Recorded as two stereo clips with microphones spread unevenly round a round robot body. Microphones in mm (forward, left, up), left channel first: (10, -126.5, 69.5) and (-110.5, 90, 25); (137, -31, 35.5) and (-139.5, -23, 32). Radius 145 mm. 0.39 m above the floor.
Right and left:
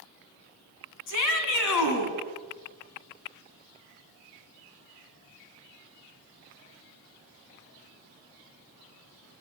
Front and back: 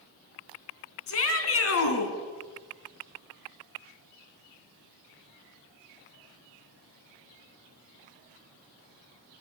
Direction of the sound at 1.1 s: 40° right.